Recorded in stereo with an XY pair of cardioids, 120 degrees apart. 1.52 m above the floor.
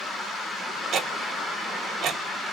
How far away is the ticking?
About 1.0 m.